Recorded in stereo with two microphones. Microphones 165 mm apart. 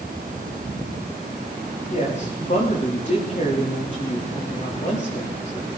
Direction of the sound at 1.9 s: 50° left (ahead or behind).